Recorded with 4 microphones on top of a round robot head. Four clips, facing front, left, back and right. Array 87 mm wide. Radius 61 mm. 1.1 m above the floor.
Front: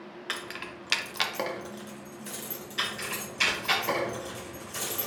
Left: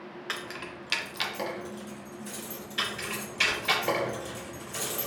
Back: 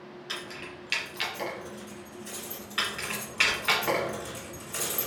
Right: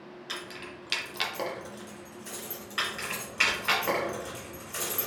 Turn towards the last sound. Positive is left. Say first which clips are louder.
# even, back 1 dB
turn(degrees=-135)